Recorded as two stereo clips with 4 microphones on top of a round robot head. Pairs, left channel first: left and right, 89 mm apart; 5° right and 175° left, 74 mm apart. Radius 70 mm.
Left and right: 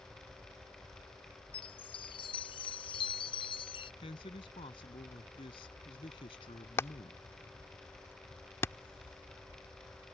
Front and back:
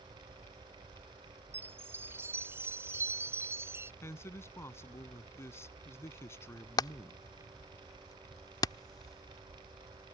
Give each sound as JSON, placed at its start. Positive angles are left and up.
{"t": 1.5, "sound": "a chime", "azimuth_deg": 120}
{"t": 4.0, "sound": "a man speaking", "azimuth_deg": 50}
{"t": 6.8, "sound": "hammering", "azimuth_deg": 25}